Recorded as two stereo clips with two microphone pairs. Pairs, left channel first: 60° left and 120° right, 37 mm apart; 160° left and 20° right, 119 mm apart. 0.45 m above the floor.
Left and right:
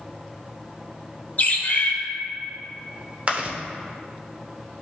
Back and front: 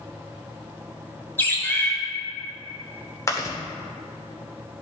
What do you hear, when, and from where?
1.4 s a bird: 90° left, 1.4 m
3.3 s chewing: 155° right, 1.3 m